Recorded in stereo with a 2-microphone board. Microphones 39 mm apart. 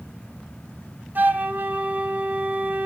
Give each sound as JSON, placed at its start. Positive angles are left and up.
{"t": 1.1, "sound": "a flute", "side_deg": -50, "distance_m": 2.5}